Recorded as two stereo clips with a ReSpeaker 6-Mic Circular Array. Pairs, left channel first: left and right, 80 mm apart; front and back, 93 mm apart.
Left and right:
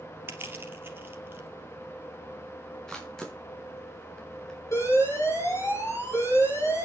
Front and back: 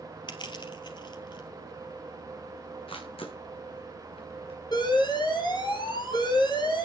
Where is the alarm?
40° left, 6 m.